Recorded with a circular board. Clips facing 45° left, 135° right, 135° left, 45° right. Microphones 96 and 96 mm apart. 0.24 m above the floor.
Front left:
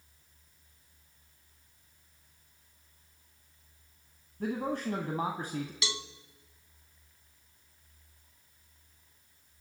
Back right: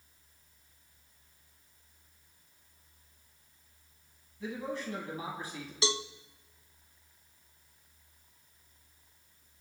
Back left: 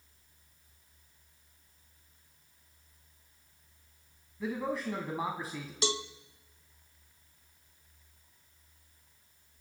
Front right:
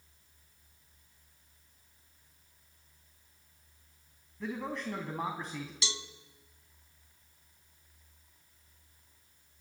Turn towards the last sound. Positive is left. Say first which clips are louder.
# back right 6 dB, back left 9 dB
turn(degrees=170)